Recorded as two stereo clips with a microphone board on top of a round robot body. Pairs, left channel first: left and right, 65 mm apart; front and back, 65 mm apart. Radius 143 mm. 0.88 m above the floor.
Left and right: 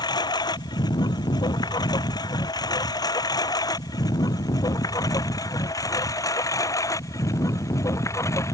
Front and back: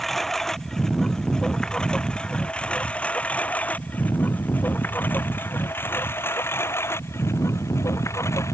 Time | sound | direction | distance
0.0 | a lawn mower | 90° left | ?